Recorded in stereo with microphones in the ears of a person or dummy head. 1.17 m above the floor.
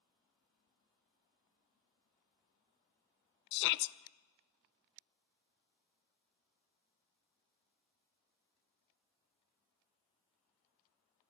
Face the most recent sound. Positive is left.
turn(degrees=65)  # may be behind; listen again after turning